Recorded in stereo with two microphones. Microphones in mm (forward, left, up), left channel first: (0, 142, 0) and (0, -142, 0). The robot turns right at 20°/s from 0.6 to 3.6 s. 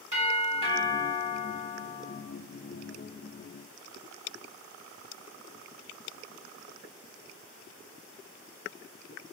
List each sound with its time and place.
0.1 s a doorbell: 25° right (ahead or behind), 1.8 m; by 2.2 s 15° right (ahead or behind), 1.8 m